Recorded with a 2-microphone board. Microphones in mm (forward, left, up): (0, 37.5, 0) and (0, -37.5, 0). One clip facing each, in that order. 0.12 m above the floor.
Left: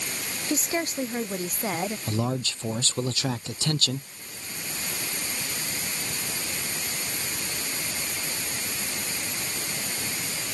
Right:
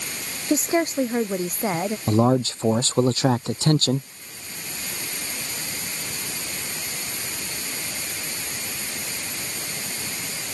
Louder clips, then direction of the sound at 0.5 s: Right 7 dB; 30° right (ahead or behind).